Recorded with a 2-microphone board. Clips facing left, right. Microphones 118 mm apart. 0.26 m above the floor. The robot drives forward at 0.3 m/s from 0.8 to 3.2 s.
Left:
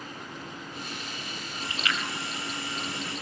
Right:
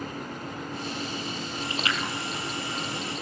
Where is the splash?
35° right (ahead or behind), 3 m.